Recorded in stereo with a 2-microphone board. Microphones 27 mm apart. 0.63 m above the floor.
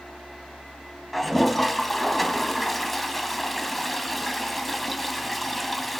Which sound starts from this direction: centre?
A toilet flushing, at 1.1 s.